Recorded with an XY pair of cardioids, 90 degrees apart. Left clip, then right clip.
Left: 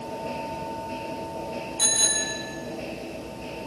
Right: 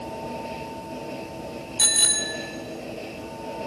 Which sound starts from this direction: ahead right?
A bicycle bell, at 1.8 s.